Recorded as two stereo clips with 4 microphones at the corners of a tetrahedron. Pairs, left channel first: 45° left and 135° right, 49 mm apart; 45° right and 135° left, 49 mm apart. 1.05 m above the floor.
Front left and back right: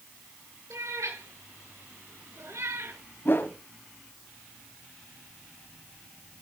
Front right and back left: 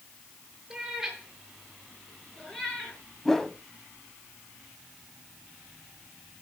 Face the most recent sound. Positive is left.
turn(degrees=35)